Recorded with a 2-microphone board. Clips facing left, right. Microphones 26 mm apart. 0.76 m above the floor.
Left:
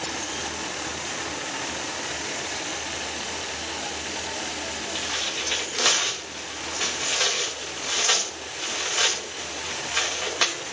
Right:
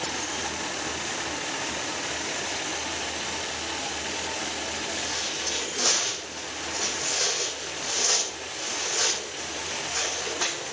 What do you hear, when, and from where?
5.0 s tearing paper: 60° left (ahead or behind), 2.5 m